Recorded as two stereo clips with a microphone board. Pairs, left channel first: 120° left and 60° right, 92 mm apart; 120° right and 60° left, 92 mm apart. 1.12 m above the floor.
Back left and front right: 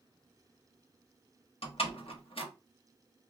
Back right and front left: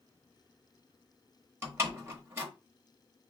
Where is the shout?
I don't hear a shout.